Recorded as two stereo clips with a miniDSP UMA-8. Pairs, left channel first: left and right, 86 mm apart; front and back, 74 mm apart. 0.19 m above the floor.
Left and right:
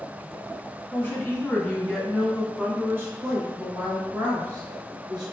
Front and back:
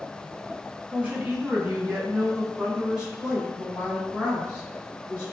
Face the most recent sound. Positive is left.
turn(degrees=-95)